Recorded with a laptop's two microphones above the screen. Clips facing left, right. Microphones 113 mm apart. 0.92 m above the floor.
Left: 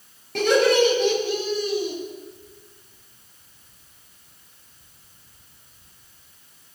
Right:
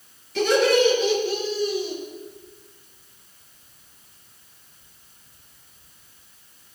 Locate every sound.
0.3 s laughter: 55° left (ahead or behind), 7 m; by 1.9 s 75° left (ahead or behind), 8 m